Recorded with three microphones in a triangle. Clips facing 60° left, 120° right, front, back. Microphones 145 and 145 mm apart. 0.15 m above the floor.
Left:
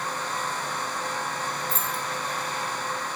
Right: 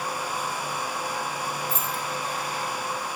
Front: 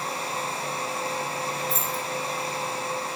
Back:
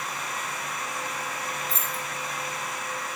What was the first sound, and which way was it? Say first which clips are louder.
Keys jangling: right 1 dB, front 4 dB; 170° left.